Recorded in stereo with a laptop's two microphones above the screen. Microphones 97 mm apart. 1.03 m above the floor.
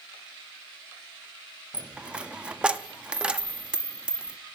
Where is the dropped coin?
10° right (ahead or behind), 0.5 m.